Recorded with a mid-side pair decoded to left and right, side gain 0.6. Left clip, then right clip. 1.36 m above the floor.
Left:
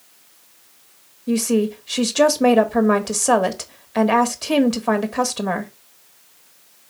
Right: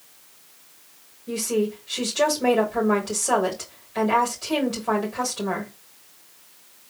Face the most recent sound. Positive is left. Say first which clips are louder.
# left 4 dB
turn(degrees=50)